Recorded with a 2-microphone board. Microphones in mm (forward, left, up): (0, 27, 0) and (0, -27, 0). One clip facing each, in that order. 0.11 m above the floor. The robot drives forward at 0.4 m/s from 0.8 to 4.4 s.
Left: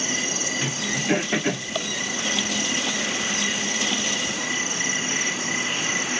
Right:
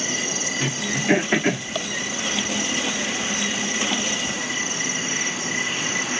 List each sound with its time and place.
0.6 s throat clearing: 50° right (ahead or behind), 6.5 m; by 1.7 s 55° right (ahead or behind), 6 m